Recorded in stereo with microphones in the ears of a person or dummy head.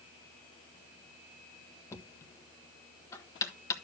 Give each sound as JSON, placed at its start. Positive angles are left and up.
{"t": 1.9, "sound": "knocking", "side_deg": 20, "distance_m": 1.2}